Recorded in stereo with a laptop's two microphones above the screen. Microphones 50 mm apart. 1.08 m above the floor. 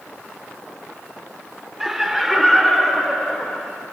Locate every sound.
1.8 s laughter: 5° right (ahead or behind), 3 m; by 3.7 s 5° left (ahead or behind), 4 m